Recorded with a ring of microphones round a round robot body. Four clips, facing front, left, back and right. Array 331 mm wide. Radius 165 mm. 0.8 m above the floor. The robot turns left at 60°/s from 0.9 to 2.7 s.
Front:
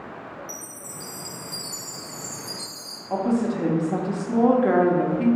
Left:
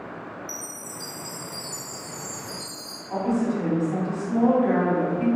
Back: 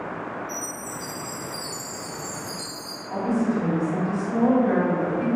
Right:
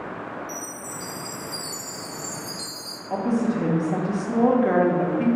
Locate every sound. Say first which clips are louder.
0.5 s a chime: right 4 dB, back 7 dB; 15° left, 0.7 m; by 3.0 s 90° right, 0.7 m
3.1 s a woman speaking: right 1 dB, front 1 dB; 40° right, 0.9 m